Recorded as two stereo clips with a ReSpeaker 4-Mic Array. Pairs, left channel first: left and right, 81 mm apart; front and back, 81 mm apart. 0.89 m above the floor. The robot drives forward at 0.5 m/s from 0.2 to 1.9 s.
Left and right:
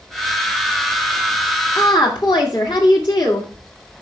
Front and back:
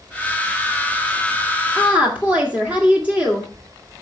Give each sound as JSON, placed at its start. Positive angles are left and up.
{"t": 1.8, "sound": "a woman speaking", "azimuth_deg": 105, "distance_m": 2.0}